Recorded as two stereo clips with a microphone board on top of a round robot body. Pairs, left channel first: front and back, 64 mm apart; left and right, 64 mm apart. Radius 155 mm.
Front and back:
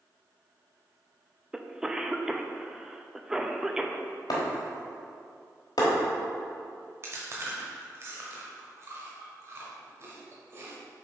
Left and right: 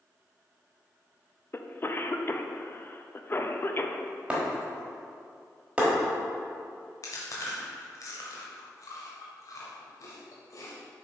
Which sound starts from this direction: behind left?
Chewing, at 7.0 s.